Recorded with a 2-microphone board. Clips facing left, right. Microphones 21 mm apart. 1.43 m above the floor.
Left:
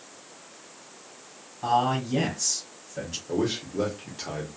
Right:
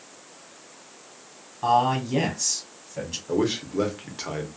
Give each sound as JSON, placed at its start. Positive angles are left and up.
{"t": 1.6, "sound": "a man speaking", "side_deg": -20, "distance_m": 1.3}
{"t": 3.3, "sound": "a man speaking", "side_deg": -25, "distance_m": 0.8}